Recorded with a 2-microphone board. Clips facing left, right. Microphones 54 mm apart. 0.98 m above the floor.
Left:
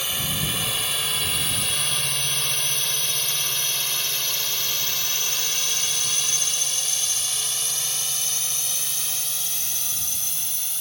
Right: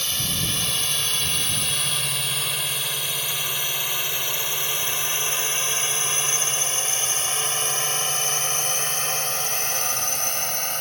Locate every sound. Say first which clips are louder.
0.0 s a drone: left 1 dB; 10° left (ahead or behind); by 10.8 s 60° right (ahead or behind)